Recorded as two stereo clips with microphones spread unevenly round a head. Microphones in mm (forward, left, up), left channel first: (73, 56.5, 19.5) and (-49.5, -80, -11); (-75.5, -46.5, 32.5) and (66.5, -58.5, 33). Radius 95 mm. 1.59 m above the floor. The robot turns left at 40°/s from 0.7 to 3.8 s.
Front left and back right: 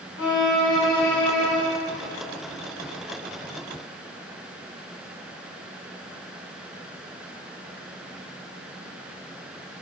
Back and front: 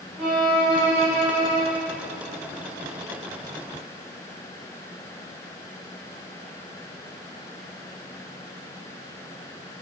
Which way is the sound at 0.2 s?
80° left.